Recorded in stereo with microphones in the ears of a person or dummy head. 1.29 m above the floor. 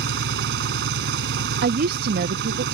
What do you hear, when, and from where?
0.0 s an engine running: 65° right (ahead or behind)
1.6 s a woman speaking: 55° right (ahead or behind)